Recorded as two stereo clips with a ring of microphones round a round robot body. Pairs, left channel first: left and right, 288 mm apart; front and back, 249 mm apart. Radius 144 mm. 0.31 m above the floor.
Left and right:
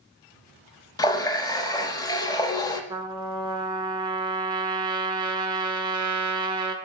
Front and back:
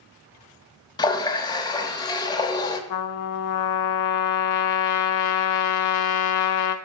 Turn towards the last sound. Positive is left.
turn(degrees=-15)